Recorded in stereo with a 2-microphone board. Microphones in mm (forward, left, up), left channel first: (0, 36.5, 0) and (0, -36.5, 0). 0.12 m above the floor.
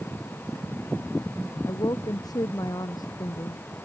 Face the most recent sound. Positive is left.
turn(degrees=60)  # may be behind; listen again after turning